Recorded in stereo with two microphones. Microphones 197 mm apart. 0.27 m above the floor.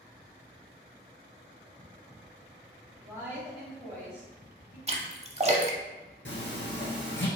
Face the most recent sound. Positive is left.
turn(degrees=85)